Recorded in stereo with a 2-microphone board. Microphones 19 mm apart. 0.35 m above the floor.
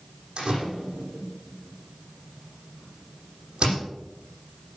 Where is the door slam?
40° right (ahead or behind), 9.5 m.